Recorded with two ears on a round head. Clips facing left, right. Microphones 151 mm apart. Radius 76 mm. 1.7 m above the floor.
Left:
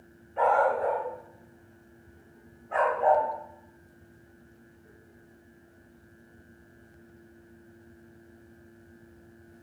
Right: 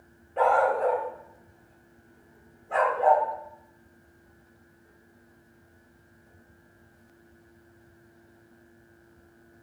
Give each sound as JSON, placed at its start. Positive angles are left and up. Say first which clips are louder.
{"t": 0.4, "sound": "a dog barking", "louder": "right 1 dB", "side_deg": -45, "distance_m": 1.8}